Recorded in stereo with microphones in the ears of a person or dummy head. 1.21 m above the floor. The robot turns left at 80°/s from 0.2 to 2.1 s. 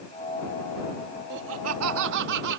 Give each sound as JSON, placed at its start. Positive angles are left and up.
{"t": 1.3, "sound": "laughter", "azimuth_deg": -50}